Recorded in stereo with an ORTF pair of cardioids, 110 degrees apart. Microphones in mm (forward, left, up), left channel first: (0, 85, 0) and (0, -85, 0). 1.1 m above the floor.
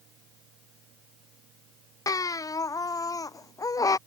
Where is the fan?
60° right.